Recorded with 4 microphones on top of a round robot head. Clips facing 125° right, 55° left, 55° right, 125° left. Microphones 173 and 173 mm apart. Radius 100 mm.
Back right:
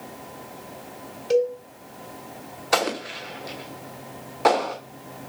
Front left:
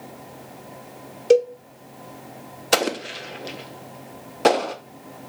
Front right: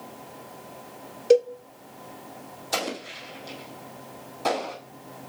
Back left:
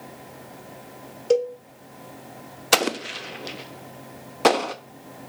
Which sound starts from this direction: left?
An explosion, at 2.7 s.